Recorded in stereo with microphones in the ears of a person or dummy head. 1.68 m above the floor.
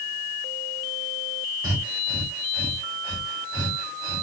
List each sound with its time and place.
1.6 s breathing: 15° right (ahead or behind), 0.7 m